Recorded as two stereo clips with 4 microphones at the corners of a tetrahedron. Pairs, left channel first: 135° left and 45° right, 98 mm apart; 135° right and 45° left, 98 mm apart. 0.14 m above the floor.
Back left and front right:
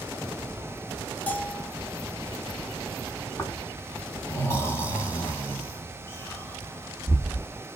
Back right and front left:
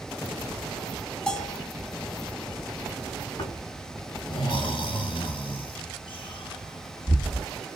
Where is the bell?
160° left, 1.3 m.